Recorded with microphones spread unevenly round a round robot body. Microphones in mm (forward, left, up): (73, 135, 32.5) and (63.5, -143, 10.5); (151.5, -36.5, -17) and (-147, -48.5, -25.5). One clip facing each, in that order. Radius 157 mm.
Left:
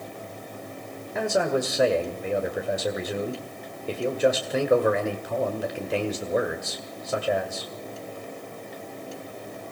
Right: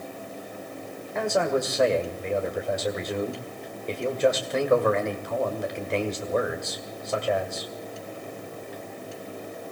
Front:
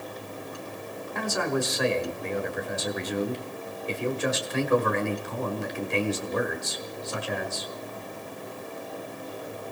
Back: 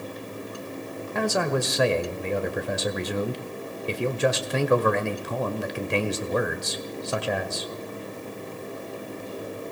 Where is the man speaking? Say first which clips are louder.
Even, back 3 dB; 175° left, 1.7 m.